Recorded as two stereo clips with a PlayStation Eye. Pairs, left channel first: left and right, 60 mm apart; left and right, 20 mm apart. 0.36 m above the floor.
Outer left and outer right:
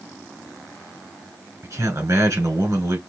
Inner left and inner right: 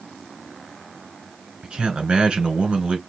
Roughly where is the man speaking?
Right.